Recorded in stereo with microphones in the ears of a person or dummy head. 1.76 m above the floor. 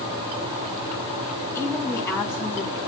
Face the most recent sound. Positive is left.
turn(degrees=15)  # may be behind; listen again after turning